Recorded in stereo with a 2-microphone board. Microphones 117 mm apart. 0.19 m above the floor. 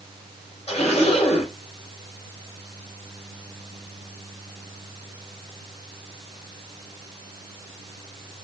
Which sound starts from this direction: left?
A zipper, at 0.7 s.